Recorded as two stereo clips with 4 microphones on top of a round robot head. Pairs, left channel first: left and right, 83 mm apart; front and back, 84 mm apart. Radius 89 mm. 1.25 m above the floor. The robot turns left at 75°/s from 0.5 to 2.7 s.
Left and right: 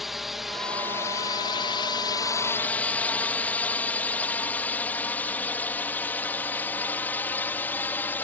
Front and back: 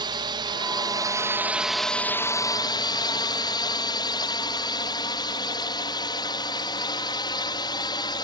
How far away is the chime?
No chime in this recording.